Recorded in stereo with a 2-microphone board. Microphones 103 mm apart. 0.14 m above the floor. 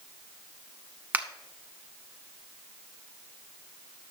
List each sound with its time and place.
1.1 s a finger snap: 15° right (ahead or behind), 0.9 m